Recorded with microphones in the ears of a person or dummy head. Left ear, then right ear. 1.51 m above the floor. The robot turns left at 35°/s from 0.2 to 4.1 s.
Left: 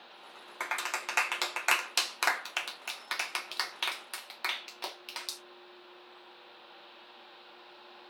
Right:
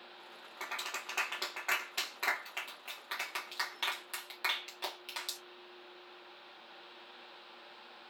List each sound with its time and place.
0.6 s a clap: 55° left (ahead or behind), 1.2 m; by 5.4 s 5° left (ahead or behind), 1.2 m